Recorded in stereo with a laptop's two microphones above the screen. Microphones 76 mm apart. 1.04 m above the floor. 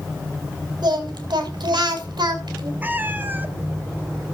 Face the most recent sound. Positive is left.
turn(degrees=-25)  # may be behind; listen again after turning